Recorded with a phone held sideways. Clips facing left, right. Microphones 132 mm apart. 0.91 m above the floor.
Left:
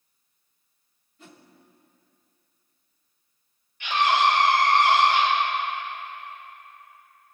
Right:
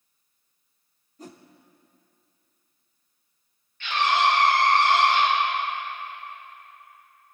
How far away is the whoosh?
About 0.6 m.